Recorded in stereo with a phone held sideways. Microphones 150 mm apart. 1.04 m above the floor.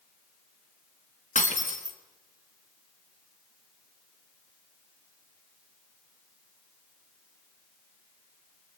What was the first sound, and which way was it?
Breaking glass, 55° left (ahead or behind).